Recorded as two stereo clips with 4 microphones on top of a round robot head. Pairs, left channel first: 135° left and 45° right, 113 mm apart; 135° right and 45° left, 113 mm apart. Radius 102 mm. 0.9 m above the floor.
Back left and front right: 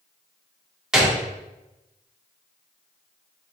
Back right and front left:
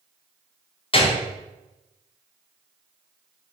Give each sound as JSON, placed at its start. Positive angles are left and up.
{"t": 0.9, "sound": "a gunshot", "azimuth_deg": -130, "distance_m": 1.1}